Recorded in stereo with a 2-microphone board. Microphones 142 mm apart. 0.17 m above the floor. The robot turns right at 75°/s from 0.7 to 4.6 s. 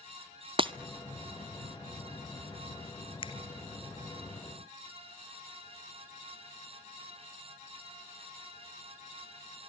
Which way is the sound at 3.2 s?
40° left (ahead or behind).